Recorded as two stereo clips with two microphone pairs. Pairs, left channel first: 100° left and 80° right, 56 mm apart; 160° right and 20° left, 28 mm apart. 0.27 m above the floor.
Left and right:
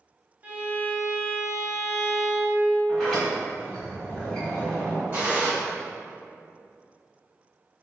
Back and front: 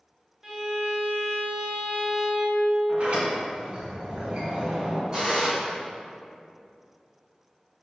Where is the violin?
55° right, 0.9 m.